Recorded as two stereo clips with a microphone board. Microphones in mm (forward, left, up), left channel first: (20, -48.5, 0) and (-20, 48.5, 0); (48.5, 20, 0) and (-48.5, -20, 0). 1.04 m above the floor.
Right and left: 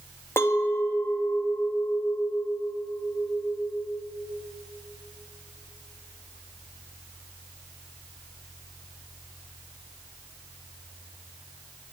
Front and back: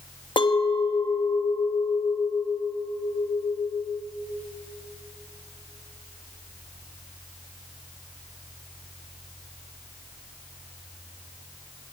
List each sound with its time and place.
0.4 s a clink: 5° right, 0.6 m